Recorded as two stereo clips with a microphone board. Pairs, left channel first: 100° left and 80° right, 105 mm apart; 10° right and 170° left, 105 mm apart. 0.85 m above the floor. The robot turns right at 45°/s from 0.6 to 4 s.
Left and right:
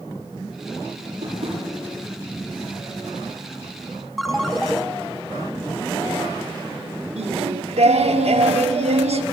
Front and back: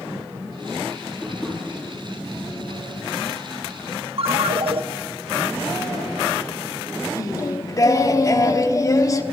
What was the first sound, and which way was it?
Tapping, 110° right.